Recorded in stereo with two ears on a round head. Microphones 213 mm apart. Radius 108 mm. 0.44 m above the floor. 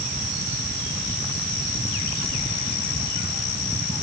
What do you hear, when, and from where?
Only background noise.